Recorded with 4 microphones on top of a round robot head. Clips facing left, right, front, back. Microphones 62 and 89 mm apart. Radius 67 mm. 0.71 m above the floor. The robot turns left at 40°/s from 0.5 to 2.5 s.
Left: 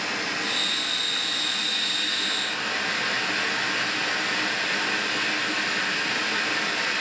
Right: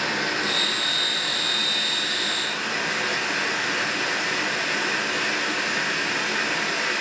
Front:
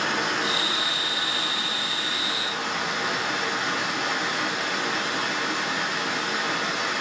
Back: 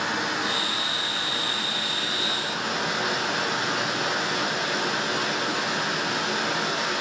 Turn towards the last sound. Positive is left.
turn(degrees=180)